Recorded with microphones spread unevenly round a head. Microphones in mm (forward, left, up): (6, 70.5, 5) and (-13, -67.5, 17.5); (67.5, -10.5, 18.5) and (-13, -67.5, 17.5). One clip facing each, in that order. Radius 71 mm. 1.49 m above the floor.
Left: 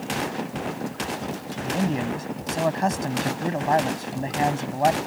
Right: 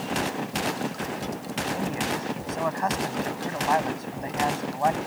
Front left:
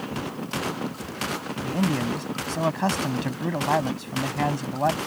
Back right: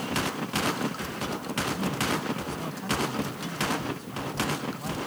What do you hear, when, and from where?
1.6 s a man speaking: 25° left